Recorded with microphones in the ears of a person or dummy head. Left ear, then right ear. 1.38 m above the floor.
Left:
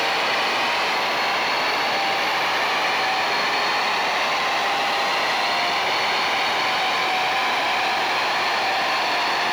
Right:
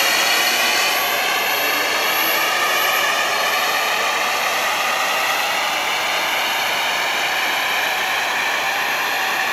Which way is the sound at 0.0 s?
50° right (ahead or behind).